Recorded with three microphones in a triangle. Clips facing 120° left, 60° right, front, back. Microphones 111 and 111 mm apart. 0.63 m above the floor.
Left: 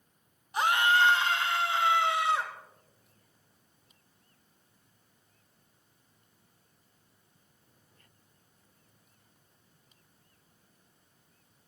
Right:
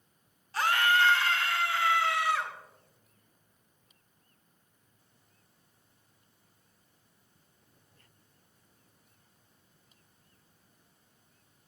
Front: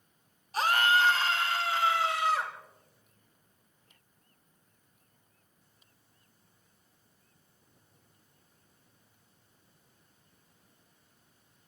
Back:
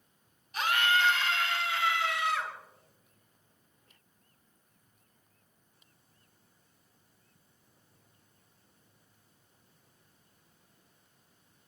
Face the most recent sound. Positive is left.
turn(degrees=55)